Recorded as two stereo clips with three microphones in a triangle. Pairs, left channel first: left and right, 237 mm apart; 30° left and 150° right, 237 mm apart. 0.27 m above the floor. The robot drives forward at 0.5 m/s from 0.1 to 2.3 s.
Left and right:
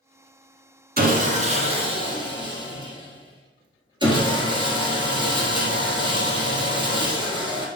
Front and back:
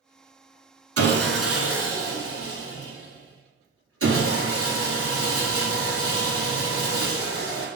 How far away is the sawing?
About 0.7 m.